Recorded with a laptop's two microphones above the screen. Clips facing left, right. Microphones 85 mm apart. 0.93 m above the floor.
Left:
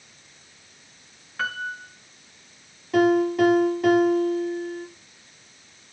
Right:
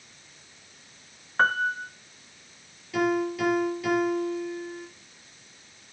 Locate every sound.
1.4 s a piano: 40° right (ahead or behind), 0.6 m
2.9 s a piano: 45° left (ahead or behind), 4.5 m